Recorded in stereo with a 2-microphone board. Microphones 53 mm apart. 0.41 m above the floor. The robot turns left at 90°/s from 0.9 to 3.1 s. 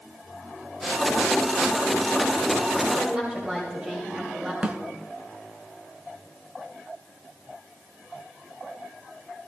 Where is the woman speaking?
10° right (ahead or behind), 2 m; by 4.5 s 20° right (ahead or behind), 2 m.